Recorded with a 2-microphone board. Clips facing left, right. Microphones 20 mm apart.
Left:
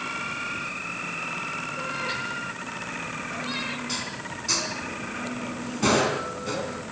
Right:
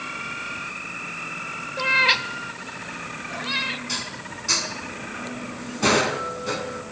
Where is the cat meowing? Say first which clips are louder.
Right 15 dB; 75° right (ahead or behind), 0.8 m; by 3.8 s 20° right (ahead or behind), 1.3 m.